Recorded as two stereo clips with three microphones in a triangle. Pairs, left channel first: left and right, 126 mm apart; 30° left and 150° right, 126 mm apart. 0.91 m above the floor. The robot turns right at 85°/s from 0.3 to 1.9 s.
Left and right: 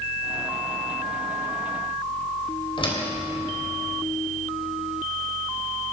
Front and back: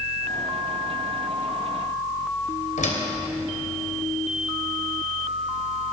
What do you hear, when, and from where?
2.8 s a door slam: 40° left, 3 m